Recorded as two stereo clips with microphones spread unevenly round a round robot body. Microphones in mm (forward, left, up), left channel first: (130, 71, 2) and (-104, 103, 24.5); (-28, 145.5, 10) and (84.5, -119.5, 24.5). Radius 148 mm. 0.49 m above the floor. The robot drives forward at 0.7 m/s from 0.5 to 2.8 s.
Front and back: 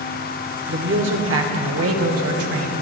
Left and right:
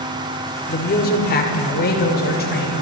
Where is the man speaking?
150° left, 1.6 m; by 2.8 s 170° left, 2.5 m.